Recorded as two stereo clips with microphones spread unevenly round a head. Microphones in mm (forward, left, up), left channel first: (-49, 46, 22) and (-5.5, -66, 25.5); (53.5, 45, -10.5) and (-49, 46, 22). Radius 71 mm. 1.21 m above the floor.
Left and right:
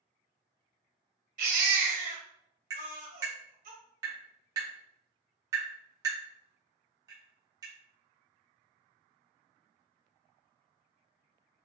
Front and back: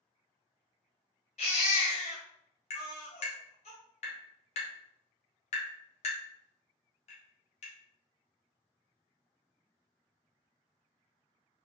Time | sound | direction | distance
1.4 | a baby crying | 50° right | 1.6 m
2.7 | tapping | straight ahead | 1.8 m